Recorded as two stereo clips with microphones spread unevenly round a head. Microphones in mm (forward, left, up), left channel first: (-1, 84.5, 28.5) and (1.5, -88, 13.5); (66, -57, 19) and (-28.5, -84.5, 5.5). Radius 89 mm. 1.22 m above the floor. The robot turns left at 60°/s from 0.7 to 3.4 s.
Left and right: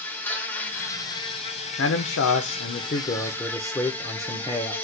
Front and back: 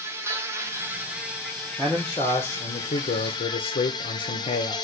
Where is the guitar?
I don't hear a guitar.